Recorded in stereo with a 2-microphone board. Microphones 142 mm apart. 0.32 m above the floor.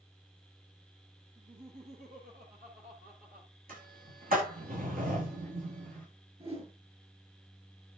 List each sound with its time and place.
1.4 s laughter: 80° right, 9.5 m; by 3.5 s 75° right (ahead or behind), 9.5 m
3.7 s a sliding door: 80° right, 10 m
6.4 s a whoosh: 45° right (ahead or behind), 5.5 m